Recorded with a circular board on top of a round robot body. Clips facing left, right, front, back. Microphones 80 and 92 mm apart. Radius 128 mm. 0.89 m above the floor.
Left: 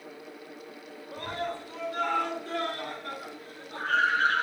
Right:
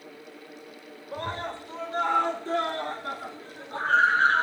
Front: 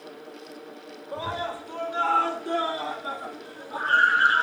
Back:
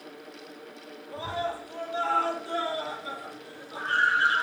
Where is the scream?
30° right, 5 m; by 4.4 s 35° right, 1.9 m.